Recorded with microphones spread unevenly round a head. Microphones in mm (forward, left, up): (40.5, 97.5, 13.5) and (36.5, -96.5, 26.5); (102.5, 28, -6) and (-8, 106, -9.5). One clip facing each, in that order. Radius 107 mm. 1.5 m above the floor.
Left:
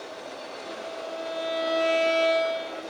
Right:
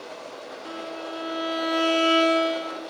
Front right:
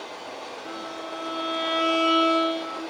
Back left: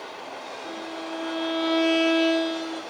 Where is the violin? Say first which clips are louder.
Right 2 dB, back left 3 dB; 120° right, 5 m.